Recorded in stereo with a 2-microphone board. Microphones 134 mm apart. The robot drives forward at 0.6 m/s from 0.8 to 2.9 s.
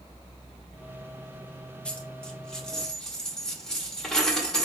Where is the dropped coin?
10° left (ahead or behind), 0.8 m; by 4.7 s 5° left (ahead or behind), 1.3 m.